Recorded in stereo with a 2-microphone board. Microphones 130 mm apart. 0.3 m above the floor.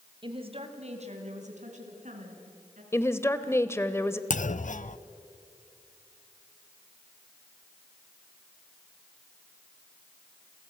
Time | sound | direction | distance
0.2 | a woman speaking | 40° right (ahead or behind) | 2 m
2.9 | a woman speaking | 20° left (ahead or behind) | 1.0 m
4.3 | a clunk | 75° left (ahead or behind) | 0.5 m